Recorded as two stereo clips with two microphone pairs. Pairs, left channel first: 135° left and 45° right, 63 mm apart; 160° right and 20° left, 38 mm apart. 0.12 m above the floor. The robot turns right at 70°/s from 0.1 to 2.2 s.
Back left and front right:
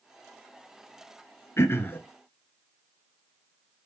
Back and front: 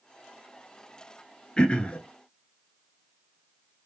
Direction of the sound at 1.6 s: 150° left.